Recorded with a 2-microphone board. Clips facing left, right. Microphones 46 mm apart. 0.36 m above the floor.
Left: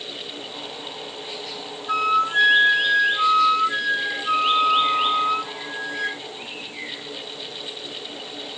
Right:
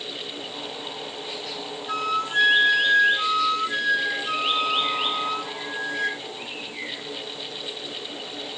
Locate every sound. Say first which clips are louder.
1.9 s a flute: left 6 dB; 10° left (ahead or behind), 1.6 m